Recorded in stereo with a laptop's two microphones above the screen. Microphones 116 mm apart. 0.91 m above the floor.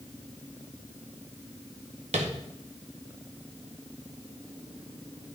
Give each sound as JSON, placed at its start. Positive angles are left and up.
{"t": 2.1, "sound": "tapping", "side_deg": -80, "distance_m": 0.9}